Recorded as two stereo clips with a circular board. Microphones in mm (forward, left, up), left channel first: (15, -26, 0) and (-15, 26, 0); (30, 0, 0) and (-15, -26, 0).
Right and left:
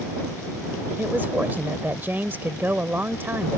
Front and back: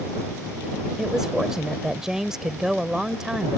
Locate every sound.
1.0 s a woman speaking: 135° left